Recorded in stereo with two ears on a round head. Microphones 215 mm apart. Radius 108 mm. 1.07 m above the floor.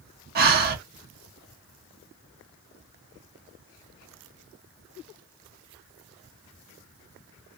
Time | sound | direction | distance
0.3 | breathing | 40° right (ahead or behind) | 0.8 m